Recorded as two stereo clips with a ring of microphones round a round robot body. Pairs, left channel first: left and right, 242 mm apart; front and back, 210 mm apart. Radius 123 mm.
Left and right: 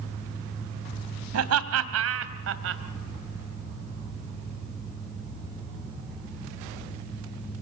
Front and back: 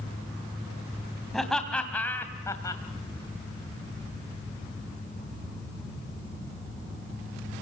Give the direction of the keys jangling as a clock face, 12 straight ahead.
No keys jangling in this recording.